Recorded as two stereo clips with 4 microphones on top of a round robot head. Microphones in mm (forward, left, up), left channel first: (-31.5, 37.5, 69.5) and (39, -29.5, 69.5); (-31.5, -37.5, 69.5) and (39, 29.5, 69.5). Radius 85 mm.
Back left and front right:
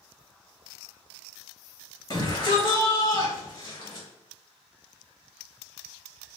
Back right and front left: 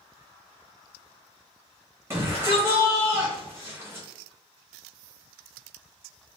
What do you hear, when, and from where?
2.1 s a shout: 90° left, 1.3 m